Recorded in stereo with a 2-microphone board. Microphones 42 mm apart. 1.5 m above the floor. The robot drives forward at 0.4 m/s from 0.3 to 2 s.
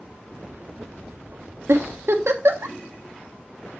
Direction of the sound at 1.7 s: 80° right.